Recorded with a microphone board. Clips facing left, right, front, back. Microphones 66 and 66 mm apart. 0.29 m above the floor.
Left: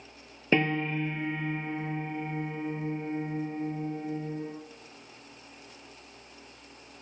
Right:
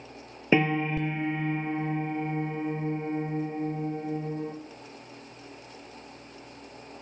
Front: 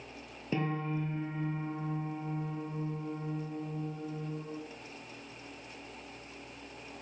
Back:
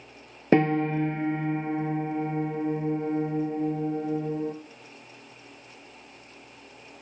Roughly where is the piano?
Behind.